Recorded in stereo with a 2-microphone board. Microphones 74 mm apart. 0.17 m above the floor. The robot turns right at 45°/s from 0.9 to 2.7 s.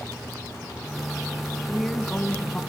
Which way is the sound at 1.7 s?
Centre (ahead or behind).